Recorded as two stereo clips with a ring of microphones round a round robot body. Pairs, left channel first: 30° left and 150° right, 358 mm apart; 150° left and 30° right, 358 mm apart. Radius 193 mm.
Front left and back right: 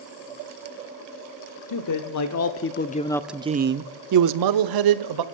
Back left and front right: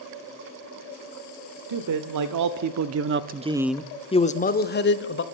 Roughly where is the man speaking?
Ahead.